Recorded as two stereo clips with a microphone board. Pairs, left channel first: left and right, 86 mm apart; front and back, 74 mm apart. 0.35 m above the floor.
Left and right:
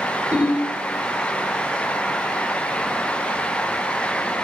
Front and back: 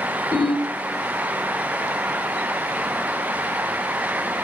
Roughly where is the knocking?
I don't hear knocking.